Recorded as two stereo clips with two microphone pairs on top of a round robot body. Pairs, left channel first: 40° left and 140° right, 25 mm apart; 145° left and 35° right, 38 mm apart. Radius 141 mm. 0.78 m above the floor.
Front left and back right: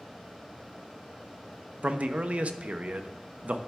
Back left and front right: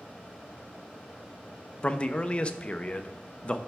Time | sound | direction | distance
1.8 | a man speaking | 155° right | 0.6 m